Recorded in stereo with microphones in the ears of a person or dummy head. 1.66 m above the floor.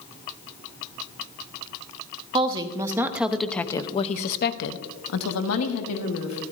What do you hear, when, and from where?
2.3 s a woman speaking: 20° right (ahead or behind), 1.4 m; by 6.4 s 75° left (ahead or behind), 1.8 m